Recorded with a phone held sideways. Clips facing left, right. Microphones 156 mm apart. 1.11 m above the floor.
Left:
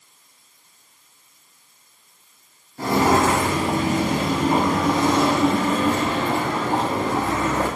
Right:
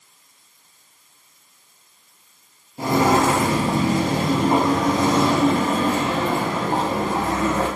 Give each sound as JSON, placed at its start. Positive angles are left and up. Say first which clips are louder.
{"t": 2.8, "sound": "footsteps", "louder": "right 1 dB", "side_deg": -20, "distance_m": 1.1}